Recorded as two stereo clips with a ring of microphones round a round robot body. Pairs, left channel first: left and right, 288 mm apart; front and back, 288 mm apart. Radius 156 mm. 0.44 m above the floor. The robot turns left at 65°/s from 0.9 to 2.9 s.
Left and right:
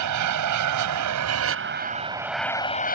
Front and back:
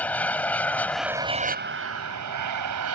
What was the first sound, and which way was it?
An aircraft, 85° right.